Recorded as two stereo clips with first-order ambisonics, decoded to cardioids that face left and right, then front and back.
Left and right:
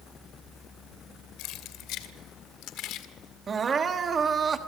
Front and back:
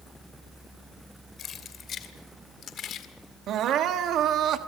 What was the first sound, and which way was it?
Keys jangling, 60° left.